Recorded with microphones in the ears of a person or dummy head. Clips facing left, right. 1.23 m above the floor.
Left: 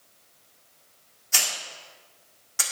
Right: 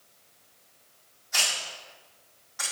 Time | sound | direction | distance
1.3 | a hiss | 50° left (ahead or behind) | 1.7 m